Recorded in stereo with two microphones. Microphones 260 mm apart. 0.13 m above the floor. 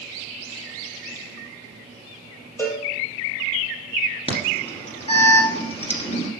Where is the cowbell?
10° left (ahead or behind), 2 m.